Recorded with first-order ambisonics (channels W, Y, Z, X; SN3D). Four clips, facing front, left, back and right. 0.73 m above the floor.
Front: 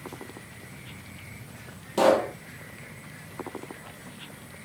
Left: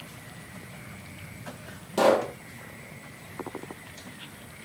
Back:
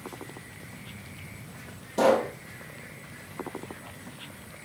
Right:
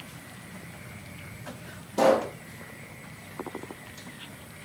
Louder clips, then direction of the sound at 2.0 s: Even, front 1 dB; 50° left.